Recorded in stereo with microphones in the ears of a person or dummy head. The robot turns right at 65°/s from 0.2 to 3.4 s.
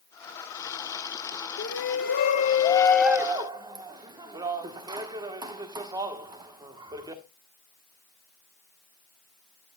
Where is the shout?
90° left, 1.3 m; by 7.2 s 155° right, 1.3 m.